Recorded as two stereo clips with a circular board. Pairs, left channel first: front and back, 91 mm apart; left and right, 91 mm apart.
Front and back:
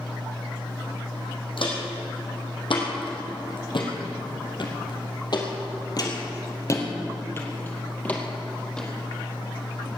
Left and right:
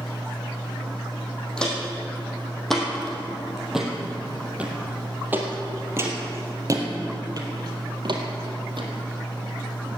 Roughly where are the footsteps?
Ahead.